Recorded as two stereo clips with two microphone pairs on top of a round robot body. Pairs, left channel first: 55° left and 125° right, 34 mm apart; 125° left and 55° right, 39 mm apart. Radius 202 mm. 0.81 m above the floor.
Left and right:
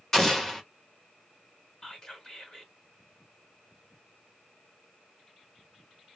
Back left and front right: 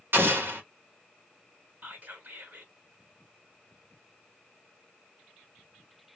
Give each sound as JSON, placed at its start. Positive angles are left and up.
{"t": 0.1, "sound": "an explosion", "azimuth_deg": -25, "distance_m": 1.3}
{"t": 1.8, "sound": "whispering", "azimuth_deg": -15, "distance_m": 2.0}